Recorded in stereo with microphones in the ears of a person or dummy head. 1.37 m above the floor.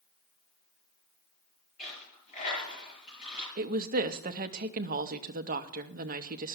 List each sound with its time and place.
1.8 s a dropped coin: 45° left (ahead or behind), 6.5 m
3.6 s a woman speaking: 35° right (ahead or behind), 0.6 m